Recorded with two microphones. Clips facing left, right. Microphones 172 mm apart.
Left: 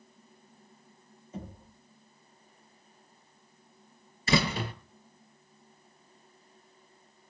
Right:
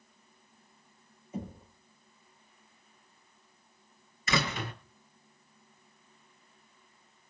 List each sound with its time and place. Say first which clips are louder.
1.3 s knocking: right 3 dB; 10° right (ahead or behind), 9 m
4.3 s a door slam: left 4 dB; 30° left (ahead or behind), 5 m